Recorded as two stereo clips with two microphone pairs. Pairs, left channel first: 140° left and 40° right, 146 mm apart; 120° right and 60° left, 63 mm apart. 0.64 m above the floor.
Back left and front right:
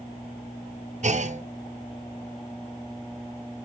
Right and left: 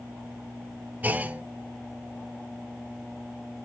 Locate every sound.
1.0 s a clunk: 5° right, 0.5 m